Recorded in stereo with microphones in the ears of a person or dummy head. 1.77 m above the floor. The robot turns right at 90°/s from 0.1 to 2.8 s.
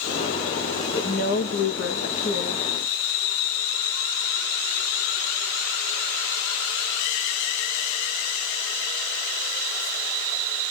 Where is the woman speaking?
30° left, 1.2 m; by 2.7 s 175° right, 1.2 m.